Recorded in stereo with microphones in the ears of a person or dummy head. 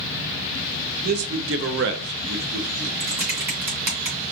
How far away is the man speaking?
About 0.8 m.